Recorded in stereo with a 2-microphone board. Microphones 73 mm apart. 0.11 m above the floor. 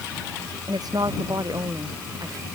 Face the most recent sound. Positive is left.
turn(degrees=-60)  # may be behind; listen again after turning